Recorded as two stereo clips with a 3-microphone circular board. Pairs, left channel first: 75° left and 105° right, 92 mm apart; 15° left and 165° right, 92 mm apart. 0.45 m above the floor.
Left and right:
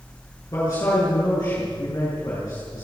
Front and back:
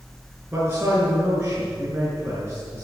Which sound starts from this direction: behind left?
A man speaking, at 0.5 s.